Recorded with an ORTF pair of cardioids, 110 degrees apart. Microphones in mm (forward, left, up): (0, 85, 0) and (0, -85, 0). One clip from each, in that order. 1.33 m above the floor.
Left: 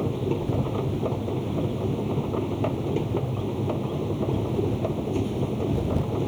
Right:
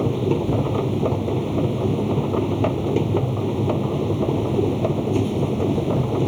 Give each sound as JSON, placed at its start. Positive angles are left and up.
{"t": 0.0, "sound": "a machine running", "azimuth_deg": -35}